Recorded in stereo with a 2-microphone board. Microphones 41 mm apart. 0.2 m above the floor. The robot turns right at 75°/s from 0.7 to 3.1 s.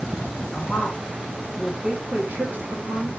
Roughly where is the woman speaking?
Left.